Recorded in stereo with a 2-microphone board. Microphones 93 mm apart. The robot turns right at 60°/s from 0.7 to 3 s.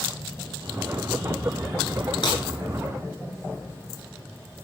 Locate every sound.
2.2 s breaking glass: 50° left (ahead or behind), 9 m; by 2.4 s 60° left (ahead or behind), 9 m